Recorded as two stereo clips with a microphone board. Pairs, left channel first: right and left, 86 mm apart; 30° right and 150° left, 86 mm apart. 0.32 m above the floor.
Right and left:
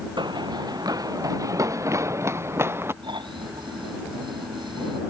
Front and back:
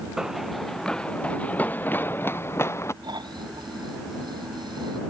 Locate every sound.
0.2 s running footsteps: 65° left; by 2.9 s 30° left
3.0 s snoring: 115° left